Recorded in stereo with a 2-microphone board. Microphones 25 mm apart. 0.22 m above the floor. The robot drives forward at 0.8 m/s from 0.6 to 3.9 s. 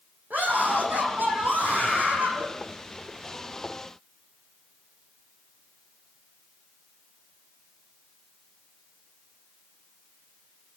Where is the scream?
80° right, 9.5 m; by 2.5 s 70° right (ahead or behind), 10 m.